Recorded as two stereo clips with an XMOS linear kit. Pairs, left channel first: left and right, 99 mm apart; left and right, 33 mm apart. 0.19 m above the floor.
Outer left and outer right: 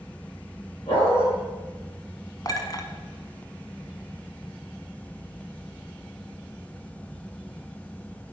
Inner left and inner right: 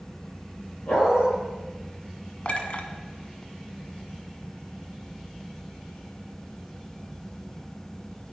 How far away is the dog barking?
About 5 m.